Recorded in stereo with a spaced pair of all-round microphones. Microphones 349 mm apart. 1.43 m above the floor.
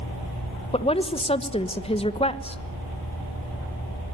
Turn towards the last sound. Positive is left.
turn(degrees=15)  # may be behind; listen again after turning